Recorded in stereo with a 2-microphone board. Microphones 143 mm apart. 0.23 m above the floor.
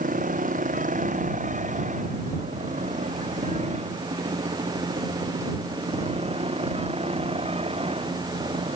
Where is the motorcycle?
70° right (ahead or behind); by 8.8 s 40° right (ahead or behind).